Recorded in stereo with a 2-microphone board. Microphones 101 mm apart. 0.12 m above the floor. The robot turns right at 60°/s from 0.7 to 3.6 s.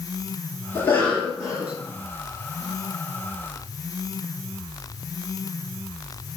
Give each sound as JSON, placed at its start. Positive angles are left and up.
{"t": 0.8, "sound": "a cough", "azimuth_deg": 145, "distance_m": 1.8}